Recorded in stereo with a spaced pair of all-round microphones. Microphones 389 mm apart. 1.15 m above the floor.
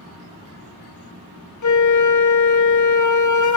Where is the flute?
50° left (ahead or behind), 0.6 m.